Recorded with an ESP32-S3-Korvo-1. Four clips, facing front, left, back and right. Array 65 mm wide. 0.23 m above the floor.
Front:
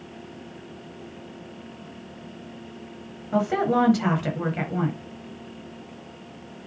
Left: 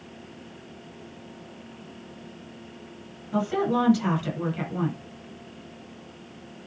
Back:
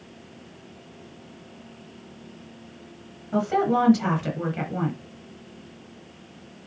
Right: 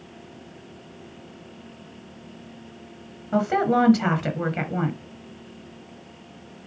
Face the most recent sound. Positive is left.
turn(degrees=-75)